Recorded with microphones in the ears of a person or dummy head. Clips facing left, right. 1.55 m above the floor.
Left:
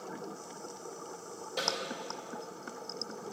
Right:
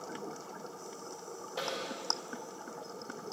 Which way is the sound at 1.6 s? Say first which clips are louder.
Left 1 dB; 40° left (ahead or behind).